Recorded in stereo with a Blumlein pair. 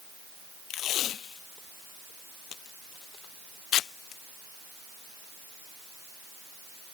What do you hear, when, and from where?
0.7 s tape being pulled: 30° left